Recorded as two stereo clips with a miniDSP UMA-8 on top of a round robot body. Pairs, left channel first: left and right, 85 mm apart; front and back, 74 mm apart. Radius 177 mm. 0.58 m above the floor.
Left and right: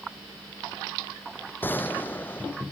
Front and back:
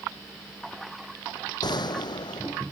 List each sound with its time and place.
1.6 s a gunshot: 25° left